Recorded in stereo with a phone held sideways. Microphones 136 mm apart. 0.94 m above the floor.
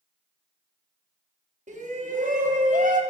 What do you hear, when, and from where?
1.7 s a shout: 65° right (ahead or behind), 1.2 m; by 3.0 s 75° right (ahead or behind), 1.2 m